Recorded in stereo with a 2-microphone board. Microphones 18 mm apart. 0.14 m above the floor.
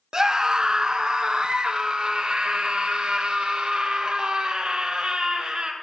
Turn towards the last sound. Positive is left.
turn(degrees=-60)  # may be behind; listen again after turning